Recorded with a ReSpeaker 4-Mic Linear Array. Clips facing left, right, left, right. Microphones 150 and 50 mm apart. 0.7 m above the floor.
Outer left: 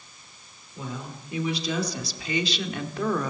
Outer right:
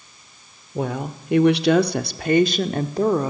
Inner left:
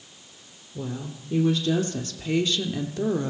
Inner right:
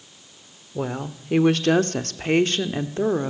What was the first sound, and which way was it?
A woman speaking, 65° right (ahead or behind).